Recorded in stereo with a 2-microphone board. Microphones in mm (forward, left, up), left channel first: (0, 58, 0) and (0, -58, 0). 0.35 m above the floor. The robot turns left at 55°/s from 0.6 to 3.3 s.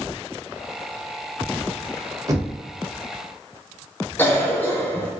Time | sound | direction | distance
2.3 | knocking | 30° right (ahead or behind) | 0.6 m
4.2 | a cough | 15° left (ahead or behind) | 0.9 m